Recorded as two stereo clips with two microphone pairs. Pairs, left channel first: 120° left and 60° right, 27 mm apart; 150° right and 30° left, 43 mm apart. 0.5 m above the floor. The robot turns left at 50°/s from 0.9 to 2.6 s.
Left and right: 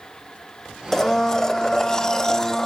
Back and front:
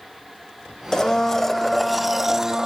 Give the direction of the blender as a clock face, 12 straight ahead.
7 o'clock.